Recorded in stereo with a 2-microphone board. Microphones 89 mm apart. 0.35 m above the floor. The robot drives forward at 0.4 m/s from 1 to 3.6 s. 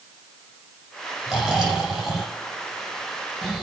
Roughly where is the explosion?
No explosion in this recording.